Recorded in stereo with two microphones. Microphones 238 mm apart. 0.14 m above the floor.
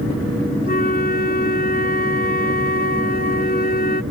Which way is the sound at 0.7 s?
40° left (ahead or behind).